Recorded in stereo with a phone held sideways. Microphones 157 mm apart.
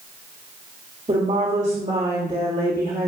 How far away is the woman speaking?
About 2.5 m.